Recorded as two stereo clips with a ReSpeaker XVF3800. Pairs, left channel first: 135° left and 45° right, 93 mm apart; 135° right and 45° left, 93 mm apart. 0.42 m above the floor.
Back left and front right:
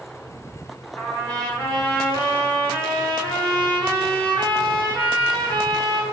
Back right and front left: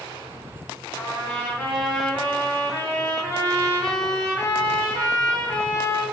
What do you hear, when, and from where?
1.0 s a trumpet: 175° right, 1.4 m